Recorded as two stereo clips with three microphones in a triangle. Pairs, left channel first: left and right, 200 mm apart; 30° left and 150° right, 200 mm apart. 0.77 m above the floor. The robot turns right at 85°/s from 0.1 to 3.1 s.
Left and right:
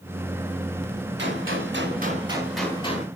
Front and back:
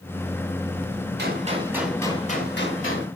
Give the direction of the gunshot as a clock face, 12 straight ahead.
4 o'clock.